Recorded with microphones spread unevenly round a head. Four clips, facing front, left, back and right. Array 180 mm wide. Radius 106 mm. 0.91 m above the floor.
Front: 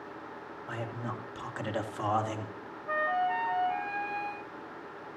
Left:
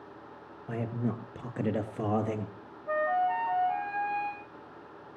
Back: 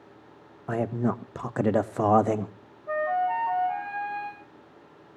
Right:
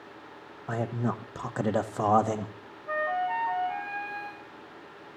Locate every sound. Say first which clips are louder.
0.7 s a man speaking: right 3 dB, back 11 dB; 175° right, 1.1 m
2.9 s a flute: left 1 dB, back 4 dB; 160° left, 1.3 m